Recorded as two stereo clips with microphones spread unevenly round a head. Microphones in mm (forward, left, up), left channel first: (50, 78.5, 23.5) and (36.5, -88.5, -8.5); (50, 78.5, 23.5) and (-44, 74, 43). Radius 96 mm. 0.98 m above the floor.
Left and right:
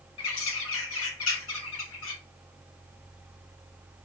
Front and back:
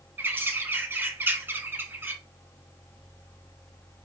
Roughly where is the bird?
Left.